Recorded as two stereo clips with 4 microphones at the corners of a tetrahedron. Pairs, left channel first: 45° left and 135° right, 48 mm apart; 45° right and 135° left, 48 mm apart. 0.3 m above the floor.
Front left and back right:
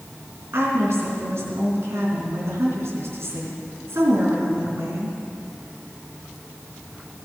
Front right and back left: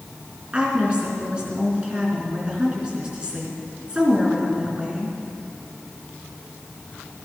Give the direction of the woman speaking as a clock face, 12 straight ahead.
5 o'clock.